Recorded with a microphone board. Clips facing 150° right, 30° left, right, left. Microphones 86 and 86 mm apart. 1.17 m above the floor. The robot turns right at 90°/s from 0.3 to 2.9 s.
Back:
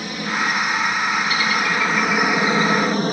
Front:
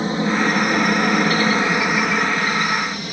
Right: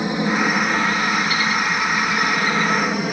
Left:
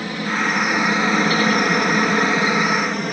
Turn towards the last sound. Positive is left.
turn(degrees=-175)